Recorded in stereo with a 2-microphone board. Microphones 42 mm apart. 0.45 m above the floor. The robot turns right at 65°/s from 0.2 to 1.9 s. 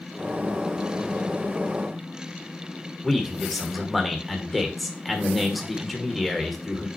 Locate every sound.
3.0 s a man speaking: centre (ahead or behind), 1.6 m